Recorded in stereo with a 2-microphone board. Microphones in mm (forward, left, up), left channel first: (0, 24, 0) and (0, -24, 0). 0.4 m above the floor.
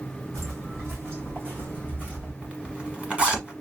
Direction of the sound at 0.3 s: 70° right (ahead or behind).